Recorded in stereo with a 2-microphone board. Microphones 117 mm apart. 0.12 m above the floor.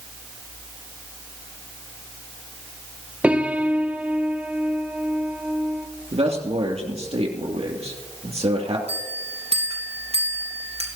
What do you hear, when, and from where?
3.2 s a piano: 10° right (ahead or behind), 1.2 m
6.1 s a man speaking: 60° right (ahead or behind), 2.5 m
8.9 s a bell: 60° right (ahead or behind), 3 m